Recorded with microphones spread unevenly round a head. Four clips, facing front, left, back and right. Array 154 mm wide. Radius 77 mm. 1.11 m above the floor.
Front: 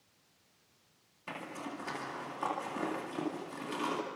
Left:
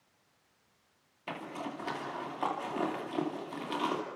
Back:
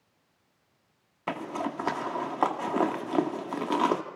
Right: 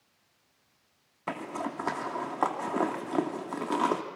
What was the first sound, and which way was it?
A zipper, 155° right.